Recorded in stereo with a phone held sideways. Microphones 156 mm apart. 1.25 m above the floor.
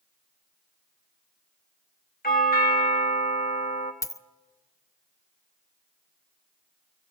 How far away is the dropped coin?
About 0.5 m.